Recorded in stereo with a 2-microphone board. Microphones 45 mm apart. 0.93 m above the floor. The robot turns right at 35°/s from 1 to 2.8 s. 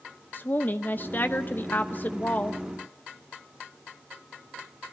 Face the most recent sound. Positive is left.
turn(degrees=140)